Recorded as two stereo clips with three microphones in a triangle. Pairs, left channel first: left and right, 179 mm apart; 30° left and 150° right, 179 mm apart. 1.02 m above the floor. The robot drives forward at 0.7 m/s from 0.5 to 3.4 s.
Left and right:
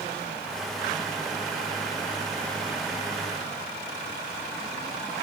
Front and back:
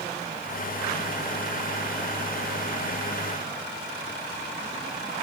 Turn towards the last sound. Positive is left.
No sound to turn to.